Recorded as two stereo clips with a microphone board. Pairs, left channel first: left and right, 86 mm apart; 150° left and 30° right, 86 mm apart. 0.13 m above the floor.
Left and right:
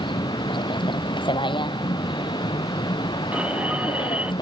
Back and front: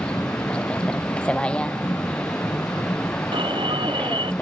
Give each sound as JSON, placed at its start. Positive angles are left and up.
{"t": 0.0, "sound": "a vehicle", "azimuth_deg": 70}
{"t": 3.3, "sound": "an alarm", "azimuth_deg": -15}